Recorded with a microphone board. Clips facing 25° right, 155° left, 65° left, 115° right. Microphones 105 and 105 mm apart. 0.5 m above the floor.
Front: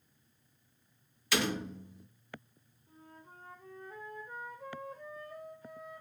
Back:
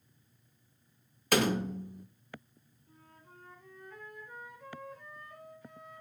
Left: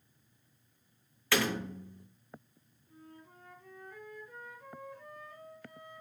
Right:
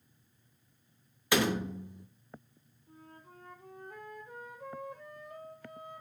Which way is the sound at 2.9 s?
80° right.